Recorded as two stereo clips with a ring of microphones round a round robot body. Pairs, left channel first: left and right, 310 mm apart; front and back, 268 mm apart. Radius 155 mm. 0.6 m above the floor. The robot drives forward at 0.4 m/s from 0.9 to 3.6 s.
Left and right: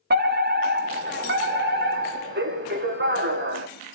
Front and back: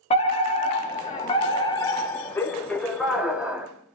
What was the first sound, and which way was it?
A fire alarm, 55° right.